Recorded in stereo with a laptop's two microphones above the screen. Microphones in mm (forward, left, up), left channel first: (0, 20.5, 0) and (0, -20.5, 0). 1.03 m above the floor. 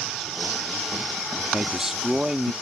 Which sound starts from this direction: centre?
A man speaking, at 1.5 s.